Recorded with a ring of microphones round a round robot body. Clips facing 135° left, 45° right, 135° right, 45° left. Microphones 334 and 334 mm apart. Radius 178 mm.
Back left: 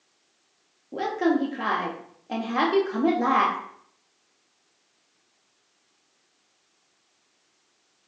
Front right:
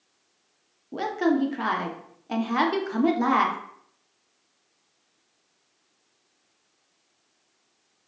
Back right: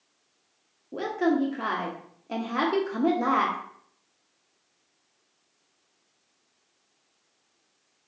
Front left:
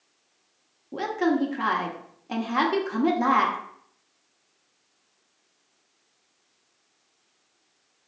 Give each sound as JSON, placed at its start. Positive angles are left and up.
{"t": 0.9, "sound": "a woman speaking", "azimuth_deg": -20, "distance_m": 0.9}